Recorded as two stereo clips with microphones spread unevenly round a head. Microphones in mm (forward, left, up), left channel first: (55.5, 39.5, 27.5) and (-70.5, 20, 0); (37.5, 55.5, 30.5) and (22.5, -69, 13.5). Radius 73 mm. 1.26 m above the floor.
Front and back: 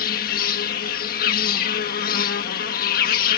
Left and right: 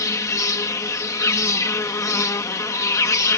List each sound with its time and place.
0.0 s an insect: 15° left